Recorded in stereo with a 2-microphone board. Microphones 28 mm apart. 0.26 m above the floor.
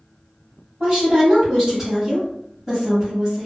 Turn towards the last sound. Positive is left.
turn(degrees=-15)  # may be behind; listen again after turning